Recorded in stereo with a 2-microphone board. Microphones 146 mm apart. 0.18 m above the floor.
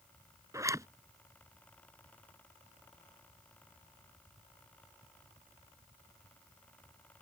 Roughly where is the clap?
I don't hear a clap.